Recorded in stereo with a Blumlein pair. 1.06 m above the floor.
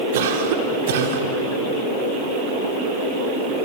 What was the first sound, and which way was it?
A cough, 55° right.